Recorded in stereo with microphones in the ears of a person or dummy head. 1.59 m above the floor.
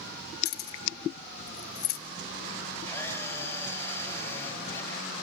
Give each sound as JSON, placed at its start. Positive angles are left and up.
{"t": 0.5, "sound": "keys jangling", "side_deg": 55, "distance_m": 1.7}
{"t": 2.9, "sound": "a camera shutter", "side_deg": 15, "distance_m": 3.5}